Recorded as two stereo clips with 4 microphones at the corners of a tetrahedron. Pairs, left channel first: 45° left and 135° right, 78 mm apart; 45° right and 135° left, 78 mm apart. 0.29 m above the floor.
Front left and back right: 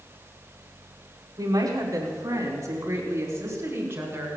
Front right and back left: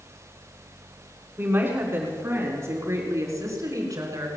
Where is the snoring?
I don't hear snoring.